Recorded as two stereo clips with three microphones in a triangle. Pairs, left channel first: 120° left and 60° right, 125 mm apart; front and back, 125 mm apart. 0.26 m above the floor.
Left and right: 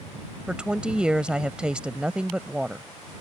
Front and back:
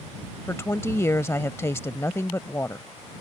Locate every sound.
0.5 s a woman speaking: 10° left